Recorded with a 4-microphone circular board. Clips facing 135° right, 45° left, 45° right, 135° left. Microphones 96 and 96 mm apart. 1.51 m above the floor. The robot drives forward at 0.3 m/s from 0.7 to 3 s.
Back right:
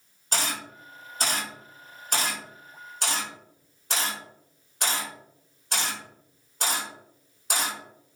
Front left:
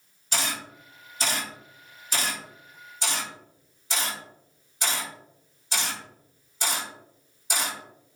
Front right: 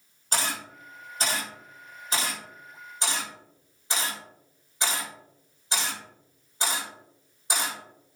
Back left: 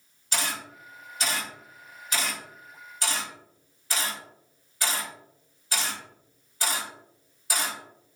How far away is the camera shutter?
About 2 m.